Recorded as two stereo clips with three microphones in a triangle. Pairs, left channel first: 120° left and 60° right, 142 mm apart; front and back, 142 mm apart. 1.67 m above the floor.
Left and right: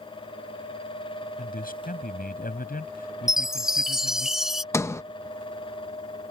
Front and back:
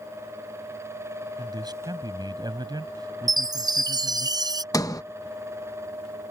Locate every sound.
1.4 s a man speaking: 120° left
3.3 s a chime: 145° right
4.7 s a sliding door: 60° left